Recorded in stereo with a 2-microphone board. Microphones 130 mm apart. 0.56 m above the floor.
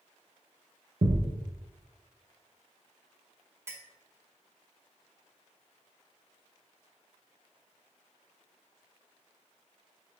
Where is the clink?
20° right (ahead or behind), 0.5 m.